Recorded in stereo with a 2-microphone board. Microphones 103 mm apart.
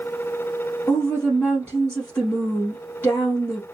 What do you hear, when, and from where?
0.9 s a woman speaking: 25° left (ahead or behind), 1.9 m